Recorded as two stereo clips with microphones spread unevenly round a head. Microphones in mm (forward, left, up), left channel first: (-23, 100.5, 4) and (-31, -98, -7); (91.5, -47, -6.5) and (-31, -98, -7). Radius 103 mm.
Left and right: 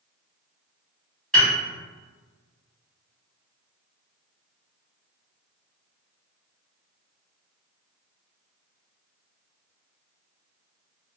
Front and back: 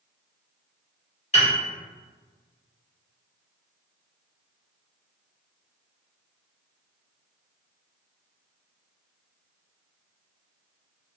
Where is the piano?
5° left, 1.6 m.